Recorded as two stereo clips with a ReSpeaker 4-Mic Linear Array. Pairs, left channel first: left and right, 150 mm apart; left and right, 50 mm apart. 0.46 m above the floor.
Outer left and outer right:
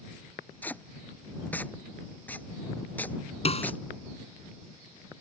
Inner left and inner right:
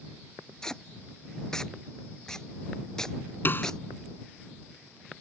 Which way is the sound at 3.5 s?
45° left (ahead or behind).